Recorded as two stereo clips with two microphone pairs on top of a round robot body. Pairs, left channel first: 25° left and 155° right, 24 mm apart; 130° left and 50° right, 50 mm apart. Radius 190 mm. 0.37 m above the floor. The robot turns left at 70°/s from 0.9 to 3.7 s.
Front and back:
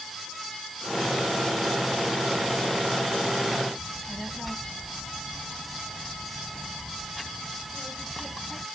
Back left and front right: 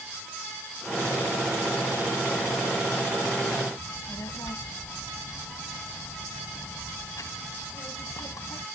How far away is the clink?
I don't hear a clink.